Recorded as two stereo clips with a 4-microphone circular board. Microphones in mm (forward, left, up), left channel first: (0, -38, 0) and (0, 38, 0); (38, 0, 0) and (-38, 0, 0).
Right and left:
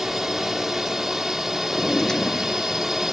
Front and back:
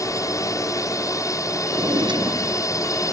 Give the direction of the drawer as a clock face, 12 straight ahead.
6 o'clock.